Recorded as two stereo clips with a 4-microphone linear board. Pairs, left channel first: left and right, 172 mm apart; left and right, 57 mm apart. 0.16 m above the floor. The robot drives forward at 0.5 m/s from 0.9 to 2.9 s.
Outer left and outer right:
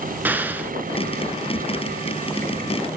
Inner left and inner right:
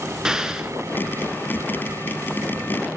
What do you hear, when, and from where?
0.2 s an explosion: 10° right (ahead or behind), 0.6 m